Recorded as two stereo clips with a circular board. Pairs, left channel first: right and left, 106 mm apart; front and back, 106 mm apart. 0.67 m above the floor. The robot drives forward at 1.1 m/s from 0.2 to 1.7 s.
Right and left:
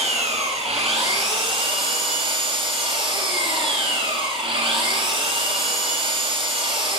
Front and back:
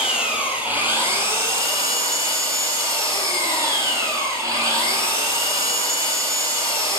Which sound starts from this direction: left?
An engine running, at 0.0 s.